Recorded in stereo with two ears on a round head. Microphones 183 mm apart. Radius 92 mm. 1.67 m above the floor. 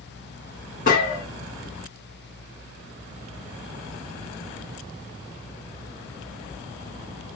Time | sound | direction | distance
0.9 | a gunshot | 40° left (ahead or behind) | 1.4 m